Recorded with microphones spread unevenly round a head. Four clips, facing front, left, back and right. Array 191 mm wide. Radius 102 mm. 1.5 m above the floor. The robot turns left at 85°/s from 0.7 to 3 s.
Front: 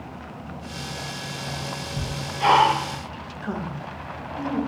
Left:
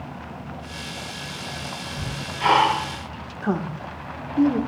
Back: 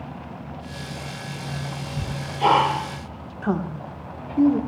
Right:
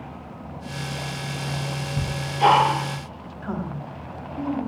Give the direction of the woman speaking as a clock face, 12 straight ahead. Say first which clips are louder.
Left 5 dB, back 6 dB; 8 o'clock.